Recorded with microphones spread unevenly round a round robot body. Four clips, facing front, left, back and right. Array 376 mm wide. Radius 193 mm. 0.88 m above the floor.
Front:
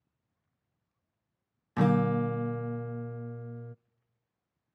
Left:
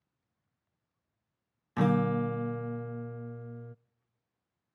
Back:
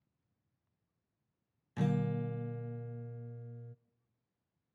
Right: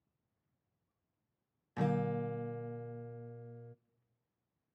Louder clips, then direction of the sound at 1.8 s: Left 7 dB, front 9 dB; 45° left.